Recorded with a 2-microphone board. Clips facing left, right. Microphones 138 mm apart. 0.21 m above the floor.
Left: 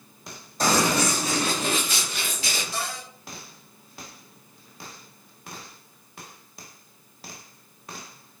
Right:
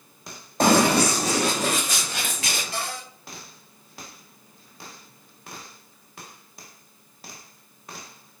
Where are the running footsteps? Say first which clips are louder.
Right 4 dB; 60° right (ahead or behind), 0.7 m; by 2.6 s 75° right (ahead or behind), 1.5 m.